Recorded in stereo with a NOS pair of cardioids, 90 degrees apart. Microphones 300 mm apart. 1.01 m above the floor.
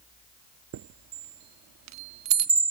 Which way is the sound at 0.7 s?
70° right.